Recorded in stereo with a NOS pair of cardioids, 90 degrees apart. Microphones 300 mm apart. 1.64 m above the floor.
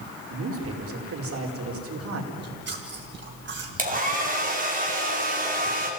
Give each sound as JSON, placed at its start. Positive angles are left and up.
{"t": 0.3, "sound": "a man speaking", "azimuth_deg": -50, "distance_m": 5.0}
{"t": 2.3, "sound": "chewing", "azimuth_deg": -35, "distance_m": 5.5}
{"t": 3.8, "sound": "a hair dryer", "azimuth_deg": -30, "distance_m": 5.0}